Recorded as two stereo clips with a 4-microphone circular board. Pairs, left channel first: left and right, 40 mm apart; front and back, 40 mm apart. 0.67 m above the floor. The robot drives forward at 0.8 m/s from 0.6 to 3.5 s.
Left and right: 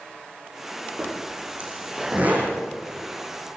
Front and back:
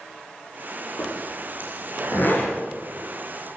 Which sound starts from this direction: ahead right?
A zipper, at 1.0 s.